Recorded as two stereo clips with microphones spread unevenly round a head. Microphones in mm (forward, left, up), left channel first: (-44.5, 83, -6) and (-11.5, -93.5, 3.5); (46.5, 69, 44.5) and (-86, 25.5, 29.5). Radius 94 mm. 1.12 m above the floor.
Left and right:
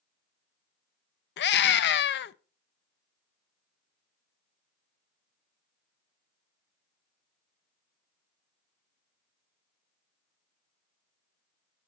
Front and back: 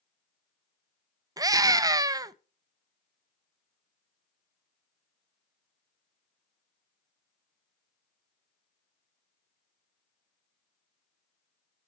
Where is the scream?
130° left, 0.6 m.